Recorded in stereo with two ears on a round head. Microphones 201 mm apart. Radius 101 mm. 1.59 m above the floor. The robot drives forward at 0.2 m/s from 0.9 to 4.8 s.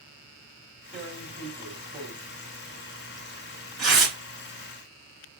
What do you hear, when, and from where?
0.9 s tearing paper: centre (ahead or behind), 2.5 m